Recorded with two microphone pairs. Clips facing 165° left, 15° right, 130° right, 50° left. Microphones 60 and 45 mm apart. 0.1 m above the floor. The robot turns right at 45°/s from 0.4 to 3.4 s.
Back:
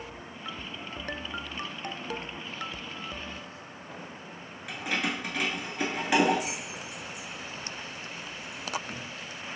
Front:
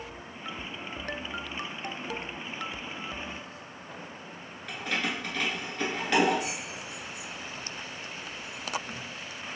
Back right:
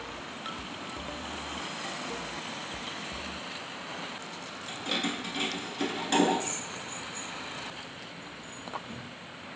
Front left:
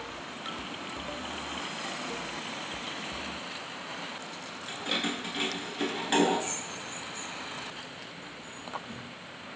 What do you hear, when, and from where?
4.7 s keys jangling: 110° left, 0.9 m